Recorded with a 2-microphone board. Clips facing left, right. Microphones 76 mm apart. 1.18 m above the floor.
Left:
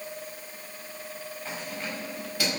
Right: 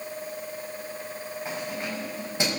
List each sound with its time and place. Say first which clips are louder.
1.4 s keys jangling: right 3 dB; 20° right (ahead or behind), 5.5 m; by 2.6 s 25° right (ahead or behind), 5.5 m